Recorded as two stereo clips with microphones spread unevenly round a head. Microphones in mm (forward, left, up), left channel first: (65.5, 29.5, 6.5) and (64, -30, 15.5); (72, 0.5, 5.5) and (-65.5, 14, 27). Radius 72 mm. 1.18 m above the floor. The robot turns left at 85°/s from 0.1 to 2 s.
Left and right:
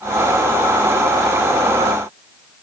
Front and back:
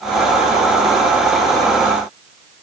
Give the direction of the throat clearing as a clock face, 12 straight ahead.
No throat clearing in this recording.